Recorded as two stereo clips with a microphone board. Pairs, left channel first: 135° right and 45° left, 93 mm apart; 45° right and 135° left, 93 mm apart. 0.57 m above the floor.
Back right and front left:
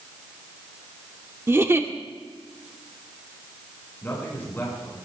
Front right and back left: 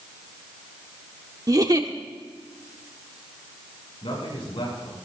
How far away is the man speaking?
About 6.5 m.